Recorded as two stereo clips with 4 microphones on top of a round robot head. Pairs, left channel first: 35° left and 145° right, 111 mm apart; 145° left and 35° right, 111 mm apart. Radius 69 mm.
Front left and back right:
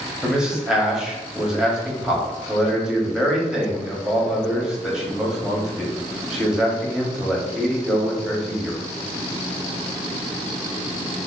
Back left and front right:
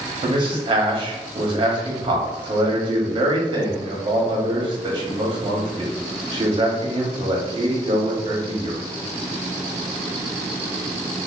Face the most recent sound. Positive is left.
turn(degrees=-65)